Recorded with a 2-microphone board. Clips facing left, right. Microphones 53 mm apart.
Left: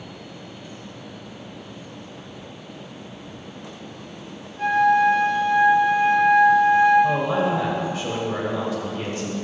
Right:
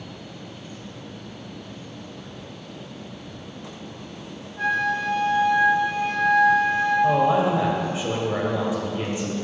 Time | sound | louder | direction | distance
4.6 | a flute | left 6 dB | 70° right (ahead or behind) | 4 m
7.0 | a man speaking | right 2 dB | 20° right (ahead or behind) | 1.7 m